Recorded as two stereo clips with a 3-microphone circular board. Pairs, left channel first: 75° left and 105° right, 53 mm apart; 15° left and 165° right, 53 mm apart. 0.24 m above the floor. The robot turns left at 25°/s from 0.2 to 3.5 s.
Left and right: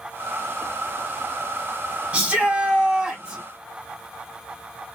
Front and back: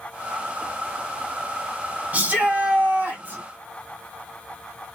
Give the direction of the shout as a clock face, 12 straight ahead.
5 o'clock.